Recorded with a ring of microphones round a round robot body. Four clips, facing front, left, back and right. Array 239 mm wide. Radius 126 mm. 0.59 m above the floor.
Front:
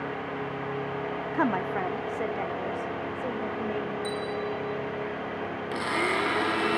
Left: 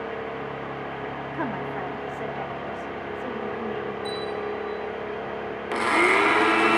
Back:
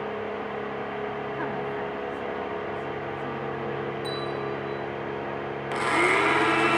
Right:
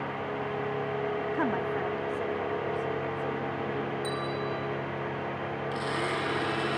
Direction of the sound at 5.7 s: 110° left.